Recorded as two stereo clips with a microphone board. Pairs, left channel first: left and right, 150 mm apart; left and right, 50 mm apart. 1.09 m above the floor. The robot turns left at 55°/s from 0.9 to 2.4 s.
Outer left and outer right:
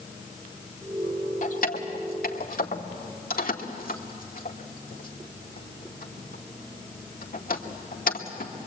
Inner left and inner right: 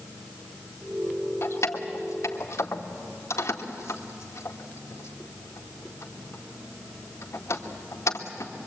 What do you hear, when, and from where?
1.4 s keys jangling: 55° left (ahead or behind), 1.9 m; by 8.5 s 70° left (ahead or behind), 1.9 m